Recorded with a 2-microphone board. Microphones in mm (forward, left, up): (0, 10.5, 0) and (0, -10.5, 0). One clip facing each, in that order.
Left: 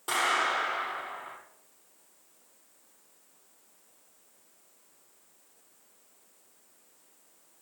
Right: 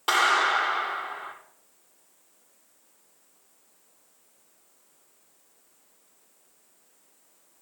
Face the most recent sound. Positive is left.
turn(degrees=-45)  # may be behind; listen again after turning